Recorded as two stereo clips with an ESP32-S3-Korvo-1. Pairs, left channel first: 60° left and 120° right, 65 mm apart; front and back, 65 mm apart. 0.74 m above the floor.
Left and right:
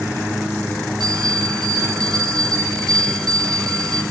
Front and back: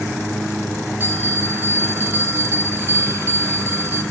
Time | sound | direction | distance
1.0 | a bell | 120° right | 5.5 m